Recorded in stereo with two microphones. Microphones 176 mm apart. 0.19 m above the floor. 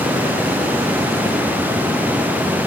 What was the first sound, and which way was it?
Only background noise.